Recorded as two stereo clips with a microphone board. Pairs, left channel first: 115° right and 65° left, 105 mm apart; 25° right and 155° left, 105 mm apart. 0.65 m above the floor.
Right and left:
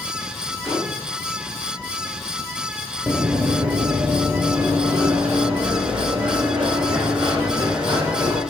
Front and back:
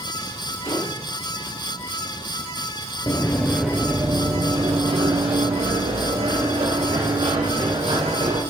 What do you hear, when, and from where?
0.6 s a gunshot: 25° right, 4 m
3.1 s running footsteps: 25° right, 0.7 m; by 8.4 s 140° left, 3.5 m